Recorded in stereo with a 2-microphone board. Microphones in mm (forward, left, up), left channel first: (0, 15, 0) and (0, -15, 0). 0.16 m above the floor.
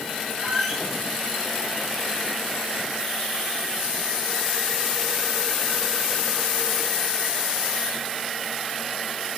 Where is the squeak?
15° right (ahead or behind), 1.3 m.